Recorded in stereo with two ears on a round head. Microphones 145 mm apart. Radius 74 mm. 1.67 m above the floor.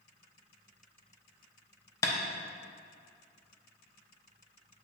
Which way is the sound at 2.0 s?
20° left (ahead or behind).